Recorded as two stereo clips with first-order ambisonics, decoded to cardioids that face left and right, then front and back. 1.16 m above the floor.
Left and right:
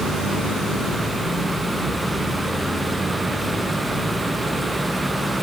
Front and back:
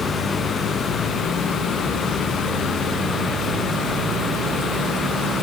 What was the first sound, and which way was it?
Only background noise.